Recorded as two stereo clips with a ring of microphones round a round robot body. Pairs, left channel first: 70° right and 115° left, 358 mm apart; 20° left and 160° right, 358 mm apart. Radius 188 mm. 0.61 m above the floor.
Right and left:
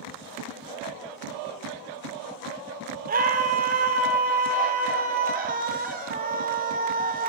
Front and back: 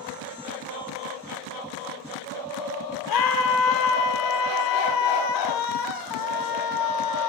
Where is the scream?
45° left, 2.5 m.